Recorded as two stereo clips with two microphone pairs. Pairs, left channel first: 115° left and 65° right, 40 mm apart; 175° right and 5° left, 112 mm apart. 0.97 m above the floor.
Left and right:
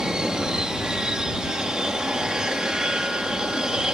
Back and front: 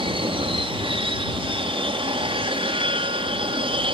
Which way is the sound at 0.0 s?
Straight ahead.